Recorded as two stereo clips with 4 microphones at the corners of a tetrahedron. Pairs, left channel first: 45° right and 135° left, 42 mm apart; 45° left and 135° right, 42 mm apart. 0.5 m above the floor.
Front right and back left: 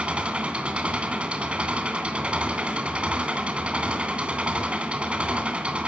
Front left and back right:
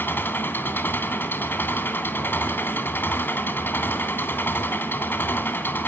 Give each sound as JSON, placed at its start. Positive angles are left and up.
{"t": 0.0, "sound": "an engine running", "azimuth_deg": 75, "distance_m": 2.5}